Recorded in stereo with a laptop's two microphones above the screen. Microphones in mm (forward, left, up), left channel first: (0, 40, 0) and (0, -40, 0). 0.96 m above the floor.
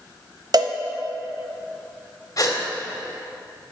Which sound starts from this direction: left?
A gasp, at 2.4 s.